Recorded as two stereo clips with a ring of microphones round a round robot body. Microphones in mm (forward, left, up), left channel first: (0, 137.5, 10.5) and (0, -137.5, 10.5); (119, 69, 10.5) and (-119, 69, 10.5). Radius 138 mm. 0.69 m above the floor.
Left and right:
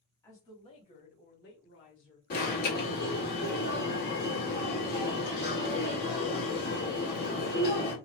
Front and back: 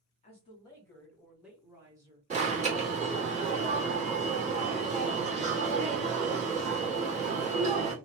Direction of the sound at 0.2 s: 20° left.